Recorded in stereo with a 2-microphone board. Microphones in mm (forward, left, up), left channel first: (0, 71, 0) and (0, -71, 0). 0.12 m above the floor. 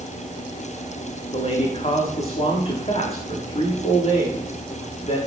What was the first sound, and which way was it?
A man speaking, 45° left (ahead or behind).